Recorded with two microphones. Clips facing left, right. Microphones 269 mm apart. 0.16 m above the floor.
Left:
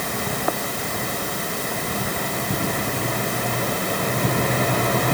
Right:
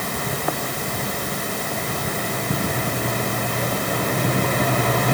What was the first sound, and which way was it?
Only background noise.